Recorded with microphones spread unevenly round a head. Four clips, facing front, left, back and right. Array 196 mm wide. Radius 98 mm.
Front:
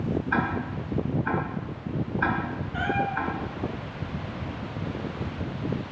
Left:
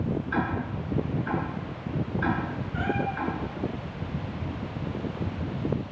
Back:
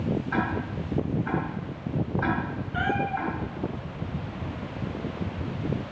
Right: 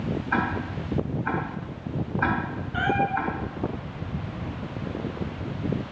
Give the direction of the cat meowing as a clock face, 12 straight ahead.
4 o'clock.